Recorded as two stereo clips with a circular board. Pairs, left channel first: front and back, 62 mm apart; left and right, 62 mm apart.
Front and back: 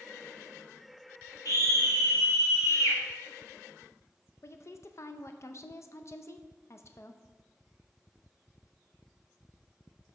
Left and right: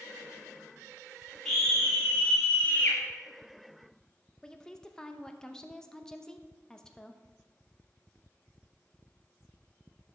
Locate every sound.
1.4 s a scream: straight ahead, 3.5 m; by 3.0 s 30° left, 1.9 m
4.4 s a woman speaking: 10° left, 0.5 m